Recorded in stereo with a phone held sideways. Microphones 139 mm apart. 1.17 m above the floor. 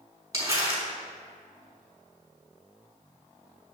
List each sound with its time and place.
0.3 s crumpling: 25° right (ahead or behind), 4 m